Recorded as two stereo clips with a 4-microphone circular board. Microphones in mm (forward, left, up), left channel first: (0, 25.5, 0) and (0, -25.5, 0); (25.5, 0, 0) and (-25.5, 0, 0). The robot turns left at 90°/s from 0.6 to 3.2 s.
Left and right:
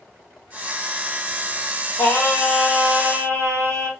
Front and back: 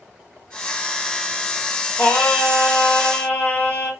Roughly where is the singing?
Ahead left.